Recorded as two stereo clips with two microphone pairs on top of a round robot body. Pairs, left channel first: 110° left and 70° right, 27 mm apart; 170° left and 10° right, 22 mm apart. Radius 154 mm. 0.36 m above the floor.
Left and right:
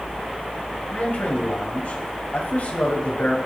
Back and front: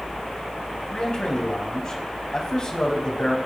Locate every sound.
0.9 s a man speaking: 125° left, 4 m